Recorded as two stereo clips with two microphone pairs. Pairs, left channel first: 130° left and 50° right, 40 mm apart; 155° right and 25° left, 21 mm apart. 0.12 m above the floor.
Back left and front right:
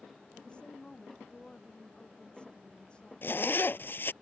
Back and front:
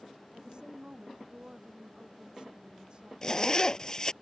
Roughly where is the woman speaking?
Left.